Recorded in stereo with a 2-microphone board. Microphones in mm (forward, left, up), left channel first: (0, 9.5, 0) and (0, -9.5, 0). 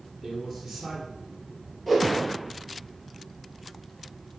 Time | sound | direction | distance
0.2 | a man speaking | 10° left (ahead or behind) | 2.5 m
1.9 | a whoosh | 10° left (ahead or behind) | 2 m